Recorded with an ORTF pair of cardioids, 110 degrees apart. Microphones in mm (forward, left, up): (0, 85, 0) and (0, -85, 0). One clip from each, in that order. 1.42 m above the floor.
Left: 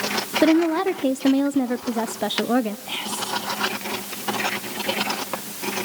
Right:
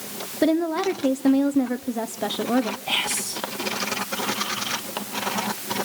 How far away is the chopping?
No chopping in this recording.